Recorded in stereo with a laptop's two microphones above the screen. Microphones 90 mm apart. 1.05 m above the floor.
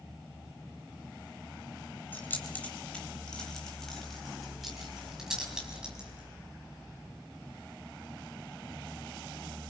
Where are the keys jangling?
20° left (ahead or behind), 3 m; by 6.3 s 10° right (ahead or behind), 5 m.